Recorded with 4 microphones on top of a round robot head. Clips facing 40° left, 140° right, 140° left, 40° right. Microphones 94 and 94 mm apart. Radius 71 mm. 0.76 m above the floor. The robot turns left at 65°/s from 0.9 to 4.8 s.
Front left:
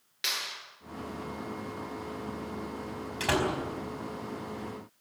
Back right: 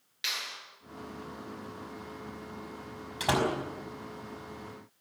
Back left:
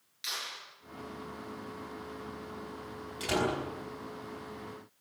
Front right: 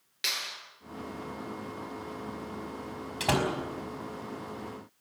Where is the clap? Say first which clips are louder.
Front left 2 dB, front right 3 dB; 10° right, 9.5 m.